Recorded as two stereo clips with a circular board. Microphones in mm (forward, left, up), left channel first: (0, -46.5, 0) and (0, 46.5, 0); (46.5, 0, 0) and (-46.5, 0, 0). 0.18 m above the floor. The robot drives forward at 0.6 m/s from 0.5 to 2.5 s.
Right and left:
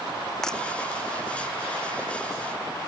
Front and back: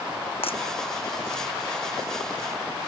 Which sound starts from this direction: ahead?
Breaking glass, at 0.4 s.